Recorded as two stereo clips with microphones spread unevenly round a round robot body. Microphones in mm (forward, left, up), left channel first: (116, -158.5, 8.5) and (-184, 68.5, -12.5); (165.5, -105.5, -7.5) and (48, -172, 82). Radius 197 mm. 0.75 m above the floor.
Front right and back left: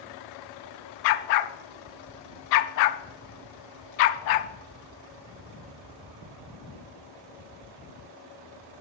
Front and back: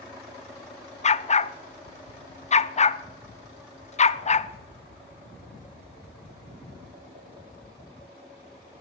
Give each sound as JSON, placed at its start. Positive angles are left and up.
{"t": 1.0, "sound": "a dog barking", "azimuth_deg": -30, "distance_m": 0.6}